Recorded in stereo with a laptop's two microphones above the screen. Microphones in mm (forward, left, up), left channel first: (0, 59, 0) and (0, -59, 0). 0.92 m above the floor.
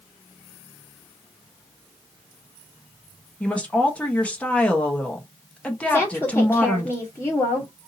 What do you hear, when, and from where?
3.4 s a woman speaking: 10° left (ahead or behind), 0.9 m
5.9 s a woman speaking: 10° left (ahead or behind), 1.4 m